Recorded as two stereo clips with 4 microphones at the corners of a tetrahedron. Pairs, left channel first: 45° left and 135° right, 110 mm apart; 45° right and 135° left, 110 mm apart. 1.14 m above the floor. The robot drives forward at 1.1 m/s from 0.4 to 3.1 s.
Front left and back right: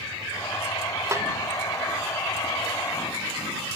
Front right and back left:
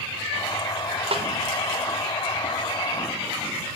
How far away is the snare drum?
About 0.5 m.